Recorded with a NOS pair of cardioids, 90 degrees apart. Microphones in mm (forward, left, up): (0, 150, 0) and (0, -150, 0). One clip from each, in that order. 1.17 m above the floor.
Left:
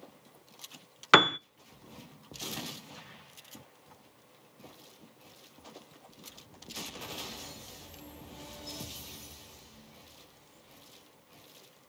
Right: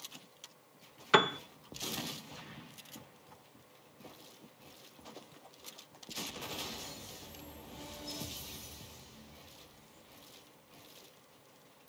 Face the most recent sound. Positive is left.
turn(degrees=55)